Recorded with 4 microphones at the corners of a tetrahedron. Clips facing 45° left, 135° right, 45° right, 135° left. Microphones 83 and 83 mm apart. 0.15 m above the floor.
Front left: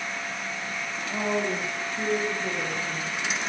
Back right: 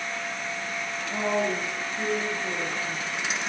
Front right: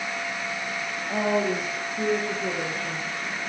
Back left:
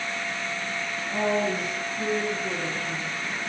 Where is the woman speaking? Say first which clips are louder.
Back right 1 dB, front right 1 dB; 45° right, 3.5 m; by 3.1 s 25° right, 4.5 m.